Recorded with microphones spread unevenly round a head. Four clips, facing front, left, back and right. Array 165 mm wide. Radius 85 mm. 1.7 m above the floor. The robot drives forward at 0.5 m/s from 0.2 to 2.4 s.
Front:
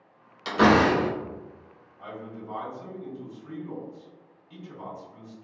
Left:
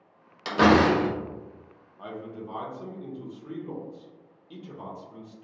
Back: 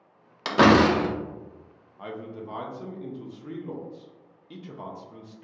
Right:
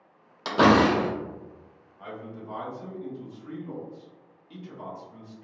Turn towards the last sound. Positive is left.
turn(degrees=155)